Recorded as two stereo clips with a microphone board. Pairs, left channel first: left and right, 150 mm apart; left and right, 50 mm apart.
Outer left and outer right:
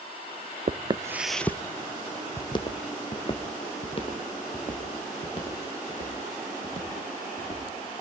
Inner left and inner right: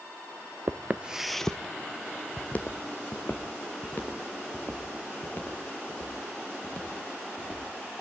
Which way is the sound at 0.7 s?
50° right (ahead or behind).